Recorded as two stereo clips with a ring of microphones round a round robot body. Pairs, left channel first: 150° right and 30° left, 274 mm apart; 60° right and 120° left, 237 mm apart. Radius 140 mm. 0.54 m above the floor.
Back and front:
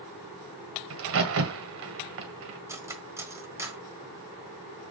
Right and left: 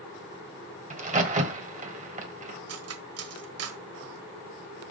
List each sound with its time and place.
0.9 s a crack: 65° left, 1.9 m
2.7 s cutlery clinking: 110° left, 1.3 m